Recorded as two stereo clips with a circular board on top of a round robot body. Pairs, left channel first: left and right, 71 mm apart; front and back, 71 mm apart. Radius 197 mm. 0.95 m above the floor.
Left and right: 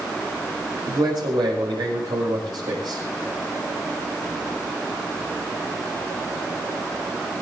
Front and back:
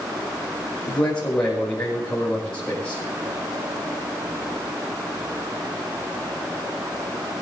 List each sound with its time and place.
0.9 s a man speaking: 80° right, 6.5 m